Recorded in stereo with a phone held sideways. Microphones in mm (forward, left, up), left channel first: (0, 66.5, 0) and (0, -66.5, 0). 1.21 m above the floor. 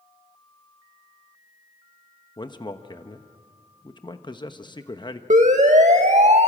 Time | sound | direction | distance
2.4 | a man speaking | 35° left (ahead or behind) | 1.0 m
5.3 | a siren | 70° right (ahead or behind) | 2 m